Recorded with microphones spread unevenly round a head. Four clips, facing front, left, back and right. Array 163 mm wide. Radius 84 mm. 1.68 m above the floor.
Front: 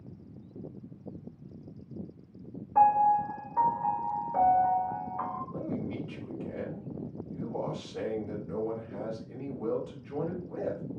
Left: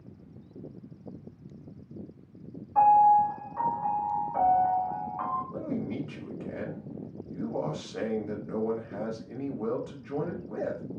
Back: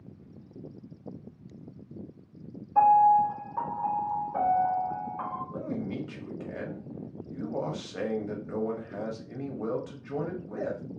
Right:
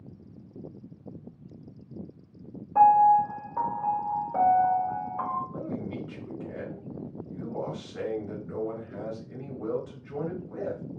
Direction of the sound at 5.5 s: 140° left.